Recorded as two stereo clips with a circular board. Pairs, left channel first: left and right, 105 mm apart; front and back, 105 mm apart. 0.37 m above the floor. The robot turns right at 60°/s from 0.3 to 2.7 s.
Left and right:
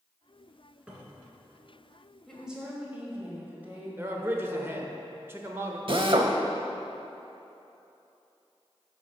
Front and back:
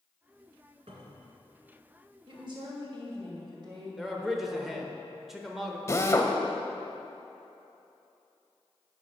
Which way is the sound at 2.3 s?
175° left.